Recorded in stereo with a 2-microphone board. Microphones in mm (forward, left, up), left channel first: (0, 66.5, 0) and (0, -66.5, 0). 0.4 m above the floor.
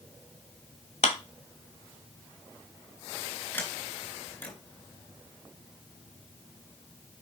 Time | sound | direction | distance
1.0 | a clap | 65° left (ahead or behind) | 1.5 m
3.5 | a sliding door | 15° left (ahead or behind) | 4 m